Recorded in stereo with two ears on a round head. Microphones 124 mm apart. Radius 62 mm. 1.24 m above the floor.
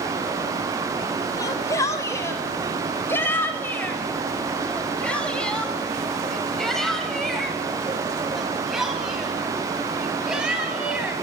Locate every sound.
1.4 s a shout: 25° left (ahead or behind), 5 m; by 11.1 s 5° right (ahead or behind), 9 m